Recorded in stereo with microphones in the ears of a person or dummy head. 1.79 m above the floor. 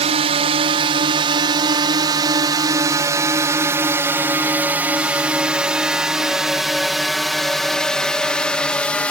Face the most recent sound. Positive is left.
turn(degrees=10)  # may be behind; listen again after turning